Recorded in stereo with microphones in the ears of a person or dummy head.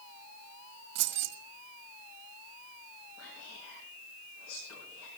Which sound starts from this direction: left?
Whispering, at 3.2 s.